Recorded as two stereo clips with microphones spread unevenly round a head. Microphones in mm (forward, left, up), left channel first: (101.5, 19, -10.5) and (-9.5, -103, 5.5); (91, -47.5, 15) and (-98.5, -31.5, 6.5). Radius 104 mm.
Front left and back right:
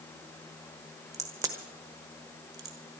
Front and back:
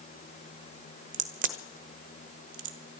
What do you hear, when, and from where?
1.1 s a crack: 155° left, 1.1 m